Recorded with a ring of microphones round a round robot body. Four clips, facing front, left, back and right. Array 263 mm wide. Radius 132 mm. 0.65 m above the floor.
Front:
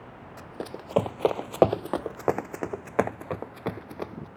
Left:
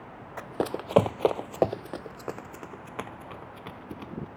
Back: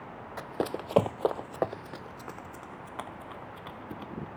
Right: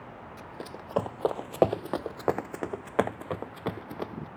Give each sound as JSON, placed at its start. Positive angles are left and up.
{"t": 0.4, "sound": "running footsteps", "azimuth_deg": 120}